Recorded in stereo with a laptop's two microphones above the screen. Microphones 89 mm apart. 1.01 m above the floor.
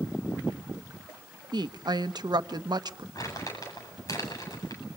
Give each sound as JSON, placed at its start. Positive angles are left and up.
{"t": 1.5, "sound": "a woman speaking", "side_deg": -55, "distance_m": 1.2}
{"t": 3.1, "sound": "crumpling", "side_deg": 40, "distance_m": 8.0}